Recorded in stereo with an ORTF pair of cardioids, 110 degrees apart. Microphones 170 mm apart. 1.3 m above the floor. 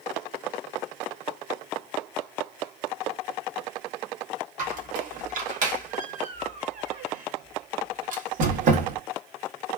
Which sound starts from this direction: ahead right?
A squeak, at 4.6 s.